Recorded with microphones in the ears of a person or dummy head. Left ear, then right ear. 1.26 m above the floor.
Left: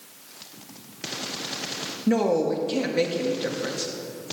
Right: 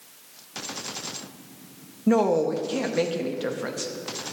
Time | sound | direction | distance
2.1 | a woman speaking | 25° right (ahead or behind) | 0.6 m